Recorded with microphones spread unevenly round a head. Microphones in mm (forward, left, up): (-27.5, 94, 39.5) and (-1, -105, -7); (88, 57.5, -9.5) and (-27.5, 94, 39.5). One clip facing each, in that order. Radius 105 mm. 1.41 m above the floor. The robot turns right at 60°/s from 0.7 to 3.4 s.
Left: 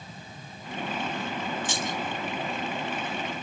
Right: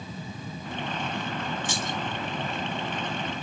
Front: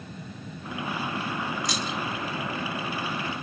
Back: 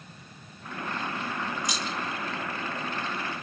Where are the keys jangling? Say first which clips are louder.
Even, front 2 dB; 90° left, 4 m; by 2.0 s 110° left, 4 m.